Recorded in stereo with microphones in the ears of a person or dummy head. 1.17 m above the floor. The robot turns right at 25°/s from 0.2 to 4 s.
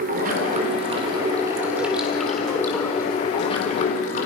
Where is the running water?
45° right, 3.5 m; by 4.3 s 50° left, 3.5 m.